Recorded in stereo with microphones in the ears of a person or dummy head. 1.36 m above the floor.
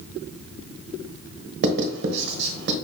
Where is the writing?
50° right (ahead or behind), 1.1 m.